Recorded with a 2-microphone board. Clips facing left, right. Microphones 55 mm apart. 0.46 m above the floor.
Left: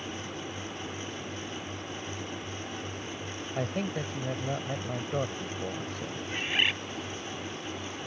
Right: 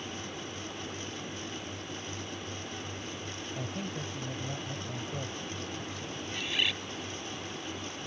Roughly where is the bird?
Left.